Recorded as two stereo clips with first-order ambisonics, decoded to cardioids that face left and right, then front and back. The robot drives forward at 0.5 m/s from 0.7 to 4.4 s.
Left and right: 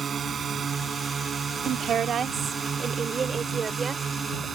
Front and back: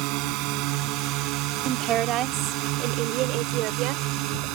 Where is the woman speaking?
140° right; by 4.5 s 160° right.